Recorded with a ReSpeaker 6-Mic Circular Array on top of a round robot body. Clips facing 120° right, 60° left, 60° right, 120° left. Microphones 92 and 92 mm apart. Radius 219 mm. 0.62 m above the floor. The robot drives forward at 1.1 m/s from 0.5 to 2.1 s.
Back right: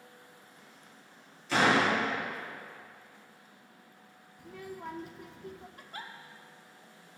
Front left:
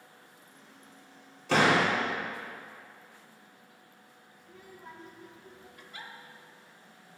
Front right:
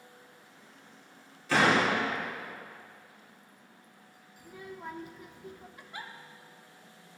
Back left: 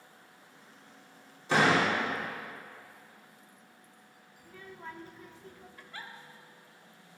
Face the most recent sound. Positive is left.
turn(degrees=-125)